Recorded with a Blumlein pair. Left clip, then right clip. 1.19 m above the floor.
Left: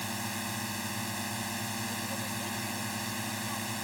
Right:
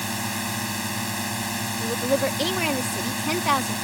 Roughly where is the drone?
Ahead.